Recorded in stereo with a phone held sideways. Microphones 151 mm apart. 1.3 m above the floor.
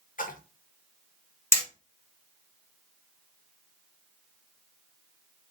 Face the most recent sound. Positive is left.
turn(degrees=20)  # may be behind; listen again after turning